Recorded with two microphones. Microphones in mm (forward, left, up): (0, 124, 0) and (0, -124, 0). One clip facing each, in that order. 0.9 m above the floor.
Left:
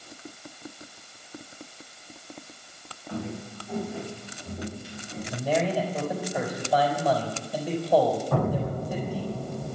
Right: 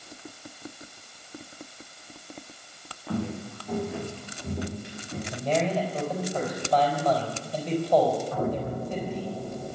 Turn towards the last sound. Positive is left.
turn(degrees=80)